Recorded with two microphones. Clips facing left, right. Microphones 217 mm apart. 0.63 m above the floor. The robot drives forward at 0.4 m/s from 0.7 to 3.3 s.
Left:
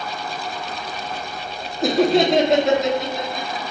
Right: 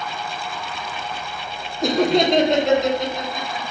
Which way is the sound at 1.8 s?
5° left (ahead or behind).